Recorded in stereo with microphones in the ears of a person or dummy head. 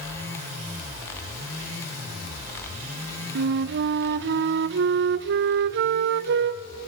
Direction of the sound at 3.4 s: 65° right (ahead or behind).